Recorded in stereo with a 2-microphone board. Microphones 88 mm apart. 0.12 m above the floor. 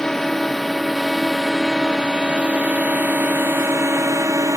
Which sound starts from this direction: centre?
A drone, at 0.0 s.